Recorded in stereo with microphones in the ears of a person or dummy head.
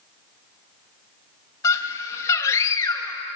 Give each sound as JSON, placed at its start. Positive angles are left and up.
{"t": 1.6, "sound": "a scream", "side_deg": 15, "distance_m": 2.5}